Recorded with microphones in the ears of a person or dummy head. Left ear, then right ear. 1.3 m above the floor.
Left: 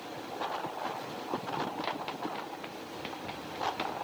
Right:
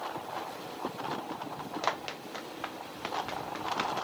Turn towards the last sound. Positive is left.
turn(degrees=-50)  # may be behind; listen again after turning